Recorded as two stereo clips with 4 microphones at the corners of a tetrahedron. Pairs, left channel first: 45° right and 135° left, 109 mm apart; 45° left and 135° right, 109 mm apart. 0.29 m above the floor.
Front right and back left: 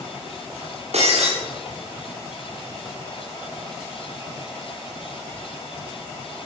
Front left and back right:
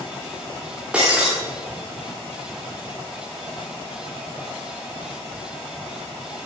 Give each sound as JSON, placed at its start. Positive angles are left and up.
{"t": 0.9, "sound": "breaking glass", "azimuth_deg": 145, "distance_m": 9.0}